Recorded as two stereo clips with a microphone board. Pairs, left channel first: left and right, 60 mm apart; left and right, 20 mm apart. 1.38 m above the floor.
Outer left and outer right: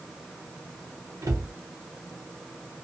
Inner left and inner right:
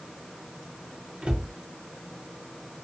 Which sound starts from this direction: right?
A cupboard door, at 1.2 s.